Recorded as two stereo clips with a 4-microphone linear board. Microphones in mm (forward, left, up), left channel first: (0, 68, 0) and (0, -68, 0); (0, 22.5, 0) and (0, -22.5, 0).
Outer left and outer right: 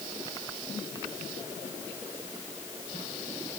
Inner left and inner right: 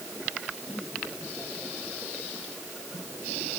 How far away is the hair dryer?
I don't hear a hair dryer.